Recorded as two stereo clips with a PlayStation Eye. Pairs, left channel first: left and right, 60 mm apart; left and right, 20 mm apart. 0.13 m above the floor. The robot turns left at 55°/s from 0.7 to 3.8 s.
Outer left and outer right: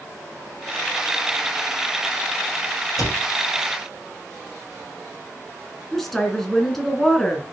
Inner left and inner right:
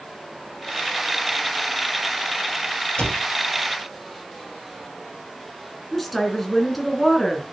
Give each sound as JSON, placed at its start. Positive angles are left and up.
{"t": 3.0, "sound": "a cupboard door", "side_deg": 65, "distance_m": 3.0}
{"t": 5.9, "sound": "a woman speaking", "side_deg": 5, "distance_m": 1.8}